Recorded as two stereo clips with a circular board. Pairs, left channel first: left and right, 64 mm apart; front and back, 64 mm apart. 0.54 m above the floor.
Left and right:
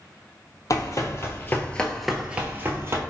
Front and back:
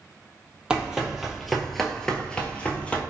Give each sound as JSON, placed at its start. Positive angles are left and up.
{"t": 0.7, "sound": "running footsteps", "azimuth_deg": 100, "distance_m": 0.8}